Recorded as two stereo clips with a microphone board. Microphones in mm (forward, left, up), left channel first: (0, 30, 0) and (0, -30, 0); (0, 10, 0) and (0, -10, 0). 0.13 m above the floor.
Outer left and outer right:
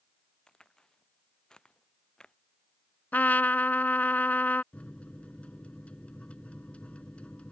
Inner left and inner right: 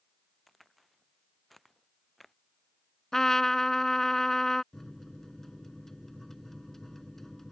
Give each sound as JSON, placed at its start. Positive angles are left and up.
{"t": 0.5, "sound": "a crack", "side_deg": 10}
{"t": 3.1, "sound": "a trumpet", "side_deg": 30}
{"t": 4.7, "sound": "a microwave", "side_deg": 20}